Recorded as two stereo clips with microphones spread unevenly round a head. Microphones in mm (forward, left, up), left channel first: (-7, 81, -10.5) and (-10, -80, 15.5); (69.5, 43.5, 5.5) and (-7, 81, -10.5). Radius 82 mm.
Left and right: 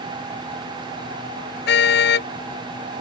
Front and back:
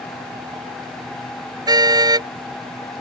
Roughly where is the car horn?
Behind left.